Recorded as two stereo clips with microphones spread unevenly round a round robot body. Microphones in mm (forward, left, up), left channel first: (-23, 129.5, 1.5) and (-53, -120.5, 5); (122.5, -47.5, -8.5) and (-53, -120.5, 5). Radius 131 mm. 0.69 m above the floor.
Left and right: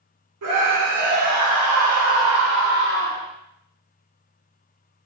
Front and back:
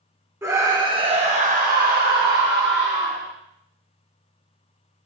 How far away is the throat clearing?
No throat clearing in this recording.